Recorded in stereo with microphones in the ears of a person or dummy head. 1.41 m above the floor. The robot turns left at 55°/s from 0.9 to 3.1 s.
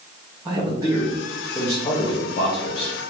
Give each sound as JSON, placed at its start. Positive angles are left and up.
{"t": 0.5, "sound": "a man speaking", "azimuth_deg": -160, "distance_m": 0.7}